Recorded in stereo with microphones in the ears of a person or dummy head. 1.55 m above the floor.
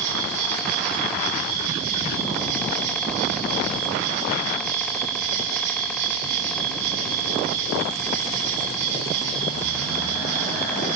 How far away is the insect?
About 8 m.